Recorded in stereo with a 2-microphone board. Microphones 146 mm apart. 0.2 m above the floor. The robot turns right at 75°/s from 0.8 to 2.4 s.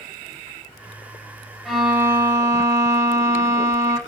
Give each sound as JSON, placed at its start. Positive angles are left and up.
{"t": 1.6, "sound": "a violin", "side_deg": 0, "distance_m": 0.9}